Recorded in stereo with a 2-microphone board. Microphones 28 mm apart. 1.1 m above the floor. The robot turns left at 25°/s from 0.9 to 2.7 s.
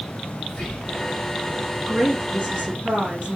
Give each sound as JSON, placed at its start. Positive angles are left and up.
{"t": 0.5, "sound": "whispering", "side_deg": 50, "distance_m": 1.3}
{"t": 1.9, "sound": "a woman speaking", "side_deg": -45, "distance_m": 1.9}